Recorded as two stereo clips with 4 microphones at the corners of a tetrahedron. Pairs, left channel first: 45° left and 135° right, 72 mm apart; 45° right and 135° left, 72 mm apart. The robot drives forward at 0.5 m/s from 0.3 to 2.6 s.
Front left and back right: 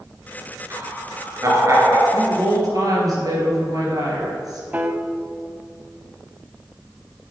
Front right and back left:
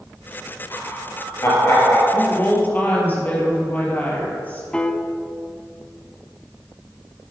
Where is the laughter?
90° right, 3 m; by 2.0 s 100° right, 3 m.